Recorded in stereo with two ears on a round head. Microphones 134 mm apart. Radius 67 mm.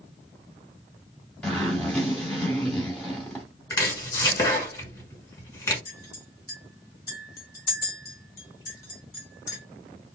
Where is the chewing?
I don't hear chewing.